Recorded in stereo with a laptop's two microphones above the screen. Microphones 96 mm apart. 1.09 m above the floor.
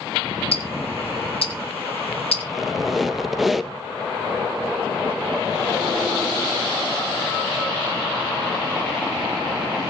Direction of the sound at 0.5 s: 85° left.